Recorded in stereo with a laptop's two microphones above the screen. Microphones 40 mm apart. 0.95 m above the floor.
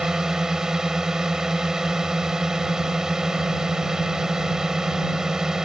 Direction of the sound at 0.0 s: 15° right (ahead or behind).